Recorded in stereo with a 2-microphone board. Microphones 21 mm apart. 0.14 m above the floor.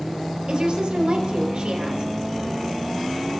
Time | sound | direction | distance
0.5 | a woman speaking | 55° right (ahead or behind) | 4 m